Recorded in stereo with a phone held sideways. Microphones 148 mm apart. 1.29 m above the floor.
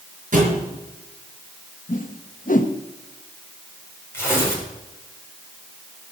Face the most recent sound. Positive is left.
turn(degrees=20)  # may be behind; listen again after turning